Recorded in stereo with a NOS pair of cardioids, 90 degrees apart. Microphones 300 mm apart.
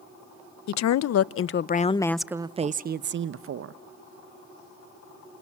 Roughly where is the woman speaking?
Ahead left.